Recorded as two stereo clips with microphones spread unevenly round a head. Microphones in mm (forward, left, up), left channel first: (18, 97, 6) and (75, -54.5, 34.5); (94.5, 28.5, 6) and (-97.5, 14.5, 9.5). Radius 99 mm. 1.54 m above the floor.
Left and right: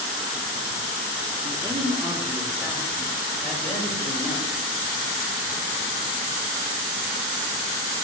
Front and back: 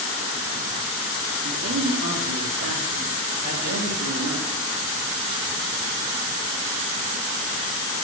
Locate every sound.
1.4 s a man speaking: 140° right, 1.2 m; by 4.5 s 170° right, 4 m